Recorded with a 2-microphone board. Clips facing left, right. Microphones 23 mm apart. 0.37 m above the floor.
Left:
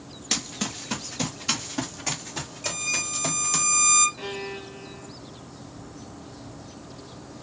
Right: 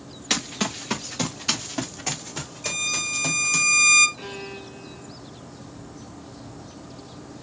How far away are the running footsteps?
About 1.5 m.